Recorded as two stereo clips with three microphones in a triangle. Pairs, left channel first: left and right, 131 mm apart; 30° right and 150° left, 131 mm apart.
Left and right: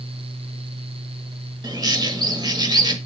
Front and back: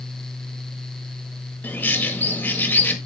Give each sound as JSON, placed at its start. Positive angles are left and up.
{"t": 1.6, "sound": "a bird", "azimuth_deg": -95, "distance_m": 1.6}